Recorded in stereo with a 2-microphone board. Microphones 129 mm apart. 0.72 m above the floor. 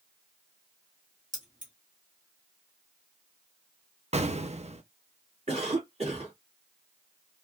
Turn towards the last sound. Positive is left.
turn(degrees=-55)  # may be behind; listen again after turning